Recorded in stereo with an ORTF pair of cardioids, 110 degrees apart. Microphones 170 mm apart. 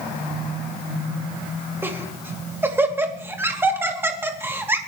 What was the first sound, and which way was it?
Laughter, 15° right.